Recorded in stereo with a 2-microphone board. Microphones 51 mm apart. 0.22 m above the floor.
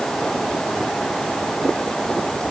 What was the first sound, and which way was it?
Only background noise.